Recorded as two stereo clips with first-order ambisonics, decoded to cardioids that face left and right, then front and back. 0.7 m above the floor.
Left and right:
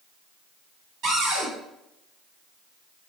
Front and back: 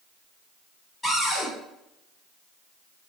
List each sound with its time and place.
1.0 s a cupboard door: 85° right, 1.8 m